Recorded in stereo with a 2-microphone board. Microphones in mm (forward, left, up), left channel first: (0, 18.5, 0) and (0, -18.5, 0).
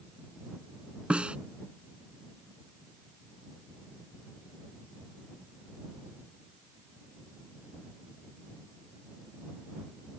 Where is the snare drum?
35° right (ahead or behind).